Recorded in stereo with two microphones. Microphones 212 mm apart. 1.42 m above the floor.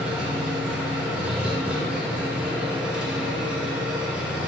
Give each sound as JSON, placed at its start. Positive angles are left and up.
{"t": 0.0, "sound": "an engine running", "side_deg": -5, "distance_m": 1.8}